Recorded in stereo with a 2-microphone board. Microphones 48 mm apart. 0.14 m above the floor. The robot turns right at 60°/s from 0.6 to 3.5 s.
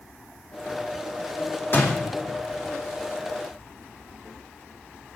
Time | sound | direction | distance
1.7 | a door slam | 40° left (ahead or behind) | 4 m